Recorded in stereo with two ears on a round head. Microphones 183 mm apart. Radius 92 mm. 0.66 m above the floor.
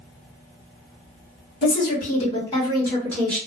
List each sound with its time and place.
1.6 s a woman speaking: 45° left (ahead or behind), 1.5 m; by 3.4 s 5° left (ahead or behind), 1.3 m